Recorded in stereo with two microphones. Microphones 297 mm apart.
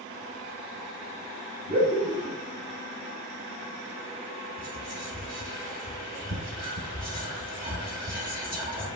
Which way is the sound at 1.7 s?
20° right (ahead or behind).